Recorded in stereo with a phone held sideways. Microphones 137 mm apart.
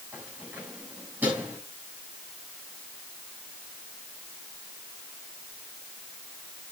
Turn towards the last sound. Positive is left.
turn(degrees=-10)  # may be behind; listen again after turning